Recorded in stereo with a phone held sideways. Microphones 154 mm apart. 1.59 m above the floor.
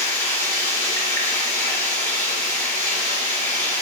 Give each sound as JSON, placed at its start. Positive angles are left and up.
{"t": 0.0, "sound": "running water", "side_deg": 20, "distance_m": 1.9}